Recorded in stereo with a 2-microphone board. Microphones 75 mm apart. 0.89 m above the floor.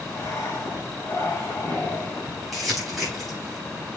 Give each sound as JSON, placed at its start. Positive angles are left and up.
{"t": 0.1, "sound": "breathing", "side_deg": 40, "distance_m": 2.5}
{"t": 2.5, "sound": "crumpling", "side_deg": 0, "distance_m": 4.0}